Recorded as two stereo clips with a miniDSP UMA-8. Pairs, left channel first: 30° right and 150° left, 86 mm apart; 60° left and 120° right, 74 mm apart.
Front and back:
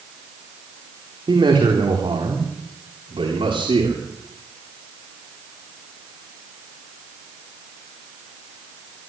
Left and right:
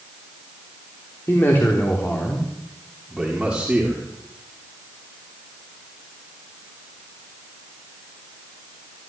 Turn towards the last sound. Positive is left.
turn(degrees=165)